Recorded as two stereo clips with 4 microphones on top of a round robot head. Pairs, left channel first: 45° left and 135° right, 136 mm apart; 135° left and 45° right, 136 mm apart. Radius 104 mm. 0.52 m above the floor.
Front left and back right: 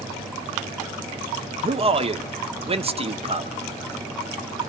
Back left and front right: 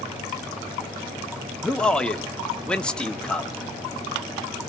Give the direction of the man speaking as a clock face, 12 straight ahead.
5 o'clock.